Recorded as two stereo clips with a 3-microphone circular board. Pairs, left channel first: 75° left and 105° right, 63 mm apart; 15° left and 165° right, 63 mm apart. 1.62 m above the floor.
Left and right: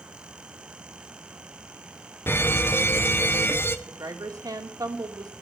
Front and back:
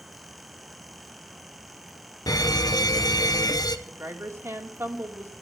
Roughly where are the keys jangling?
I don't hear keys jangling.